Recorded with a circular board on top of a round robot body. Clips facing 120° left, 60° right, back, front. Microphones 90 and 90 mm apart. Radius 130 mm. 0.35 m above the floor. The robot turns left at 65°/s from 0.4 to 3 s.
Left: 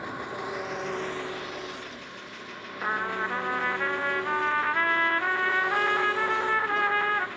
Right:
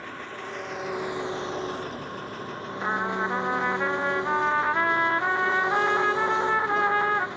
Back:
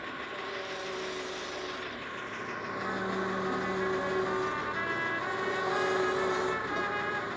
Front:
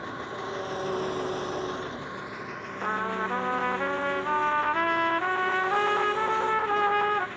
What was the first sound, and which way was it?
An engine running, 50° left.